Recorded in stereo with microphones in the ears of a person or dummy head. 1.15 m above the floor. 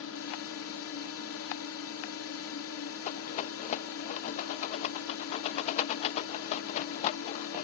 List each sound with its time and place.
0.0 s a drone: 70° left (ahead or behind)
3.0 s a rattle: 45° left (ahead or behind)